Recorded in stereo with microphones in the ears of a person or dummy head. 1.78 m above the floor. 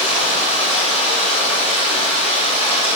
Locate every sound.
0.0 s running water: 40° left (ahead or behind), 3 m